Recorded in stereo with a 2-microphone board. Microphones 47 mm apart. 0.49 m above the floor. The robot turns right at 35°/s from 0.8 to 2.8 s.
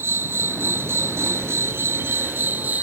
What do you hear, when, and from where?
0.0 s an insect: 110° right; by 2.8 s 40° right